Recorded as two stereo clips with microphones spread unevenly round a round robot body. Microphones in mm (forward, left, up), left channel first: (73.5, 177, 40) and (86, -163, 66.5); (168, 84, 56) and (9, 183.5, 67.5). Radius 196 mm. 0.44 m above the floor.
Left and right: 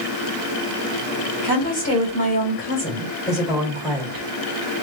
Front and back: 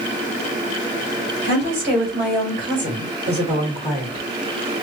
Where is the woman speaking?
140° left, 3.5 m; by 4.3 s 175° right, 1.7 m.